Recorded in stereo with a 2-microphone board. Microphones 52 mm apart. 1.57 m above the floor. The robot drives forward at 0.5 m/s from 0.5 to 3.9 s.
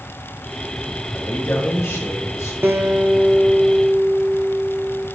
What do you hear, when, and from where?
1.1 s a man speaking: 50° left (ahead or behind), 2 m; by 2.5 s 70° left (ahead or behind), 1.8 m
2.6 s a guitar: 45° right (ahead or behind), 0.8 m; by 5.1 s 30° right (ahead or behind), 1.1 m